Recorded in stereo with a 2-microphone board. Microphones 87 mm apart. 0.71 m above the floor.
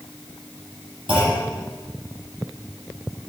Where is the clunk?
70° right (ahead or behind), 8.5 m.